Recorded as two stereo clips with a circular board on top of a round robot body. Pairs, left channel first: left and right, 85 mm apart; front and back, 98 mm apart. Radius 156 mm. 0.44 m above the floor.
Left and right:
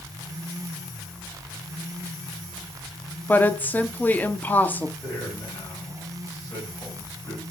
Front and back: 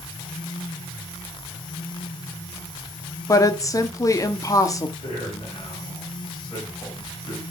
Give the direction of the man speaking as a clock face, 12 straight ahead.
11 o'clock.